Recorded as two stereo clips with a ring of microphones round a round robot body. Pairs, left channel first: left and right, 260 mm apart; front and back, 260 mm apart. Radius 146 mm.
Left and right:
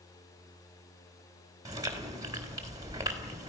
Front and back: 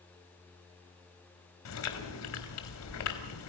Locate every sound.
1.6 s chewing: 15° right, 3.5 m